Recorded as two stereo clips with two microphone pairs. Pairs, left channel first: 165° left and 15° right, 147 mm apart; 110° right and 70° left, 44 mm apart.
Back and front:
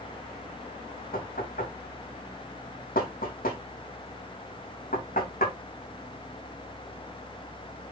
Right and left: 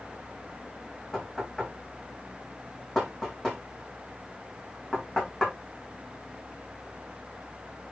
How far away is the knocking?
About 6 m.